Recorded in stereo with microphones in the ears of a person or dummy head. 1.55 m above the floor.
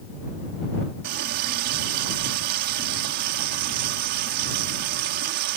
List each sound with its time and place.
1.0 s a running tap: 50° right (ahead or behind)